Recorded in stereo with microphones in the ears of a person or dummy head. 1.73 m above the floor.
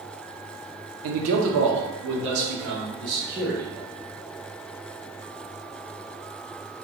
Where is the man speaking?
80° right, 0.6 m; by 3.9 s 50° right (ahead or behind), 2.0 m.